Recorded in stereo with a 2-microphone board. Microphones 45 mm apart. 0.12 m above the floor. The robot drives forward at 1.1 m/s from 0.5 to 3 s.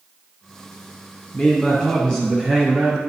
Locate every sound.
1.3 s a man speaking: 25° left (ahead or behind), 2 m; by 3.0 s 15° left (ahead or behind), 3.5 m